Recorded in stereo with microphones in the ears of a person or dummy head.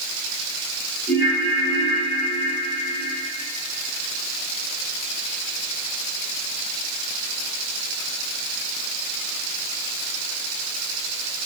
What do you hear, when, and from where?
1.1 s a ringtone: 30° left (ahead or behind), 4 m